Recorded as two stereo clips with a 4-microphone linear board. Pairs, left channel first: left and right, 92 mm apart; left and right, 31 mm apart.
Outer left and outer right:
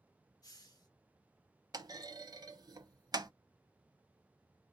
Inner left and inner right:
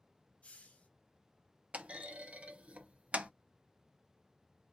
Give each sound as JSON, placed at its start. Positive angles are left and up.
{"t": 0.4, "sound": "a hiss", "side_deg": 45, "distance_m": 0.9}
{"t": 1.7, "sound": "a clunk", "side_deg": -45, "distance_m": 0.6}